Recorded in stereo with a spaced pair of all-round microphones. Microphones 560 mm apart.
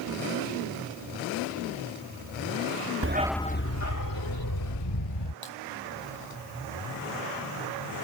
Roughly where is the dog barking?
Right.